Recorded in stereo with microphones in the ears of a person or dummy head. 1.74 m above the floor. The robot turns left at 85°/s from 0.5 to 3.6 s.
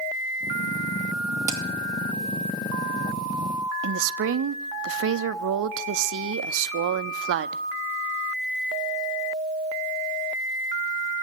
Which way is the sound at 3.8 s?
75° right (ahead or behind).